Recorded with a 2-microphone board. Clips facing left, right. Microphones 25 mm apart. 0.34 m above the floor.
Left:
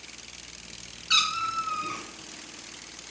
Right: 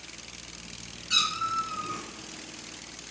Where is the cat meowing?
40° left (ahead or behind), 1.7 m.